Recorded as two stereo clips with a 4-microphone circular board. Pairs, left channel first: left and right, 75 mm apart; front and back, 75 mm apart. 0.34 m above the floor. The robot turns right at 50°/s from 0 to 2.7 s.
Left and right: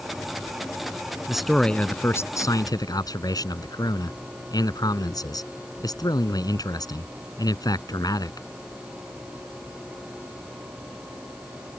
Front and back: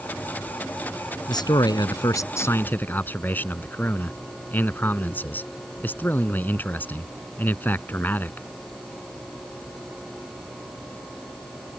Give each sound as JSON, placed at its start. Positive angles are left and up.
{"t": 1.3, "sound": "a man speaking", "azimuth_deg": -5}